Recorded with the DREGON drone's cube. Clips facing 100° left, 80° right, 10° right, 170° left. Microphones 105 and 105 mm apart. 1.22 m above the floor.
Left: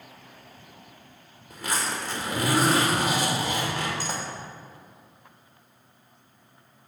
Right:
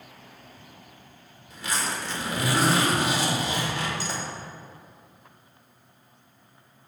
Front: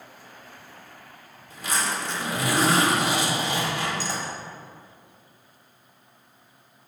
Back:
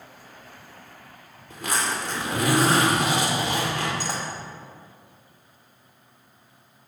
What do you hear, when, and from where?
1.5 s a zipper: 145° left, 1.9 m